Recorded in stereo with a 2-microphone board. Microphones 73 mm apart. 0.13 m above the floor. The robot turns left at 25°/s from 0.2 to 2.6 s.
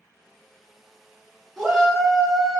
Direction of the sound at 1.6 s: Centre (ahead or behind).